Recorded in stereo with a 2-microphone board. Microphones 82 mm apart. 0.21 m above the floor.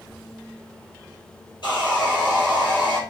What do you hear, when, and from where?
1.6 s sawing: 65° left (ahead or behind), 2.5 m